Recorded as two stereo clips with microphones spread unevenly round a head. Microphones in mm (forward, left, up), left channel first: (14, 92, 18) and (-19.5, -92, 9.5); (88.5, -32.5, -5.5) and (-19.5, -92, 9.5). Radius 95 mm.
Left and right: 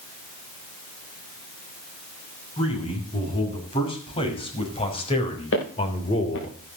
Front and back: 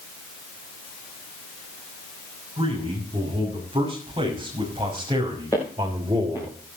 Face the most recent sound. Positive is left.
turn(degrees=105)